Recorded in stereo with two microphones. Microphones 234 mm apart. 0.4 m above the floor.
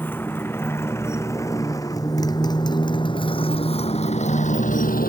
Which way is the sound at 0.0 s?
10° left (ahead or behind).